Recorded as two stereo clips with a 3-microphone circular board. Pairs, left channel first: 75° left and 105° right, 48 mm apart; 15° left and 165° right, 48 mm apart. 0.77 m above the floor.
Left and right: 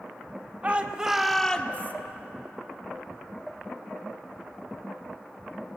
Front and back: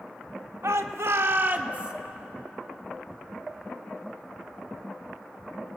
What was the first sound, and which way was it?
A shout, 165° right.